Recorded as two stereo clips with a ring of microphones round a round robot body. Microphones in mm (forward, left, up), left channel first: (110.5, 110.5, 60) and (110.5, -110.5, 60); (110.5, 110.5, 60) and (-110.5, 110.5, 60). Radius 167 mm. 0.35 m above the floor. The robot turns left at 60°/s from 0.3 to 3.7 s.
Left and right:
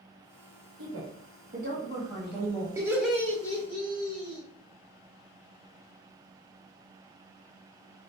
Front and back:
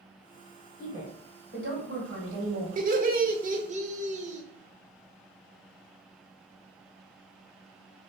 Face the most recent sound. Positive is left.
turn(degrees=145)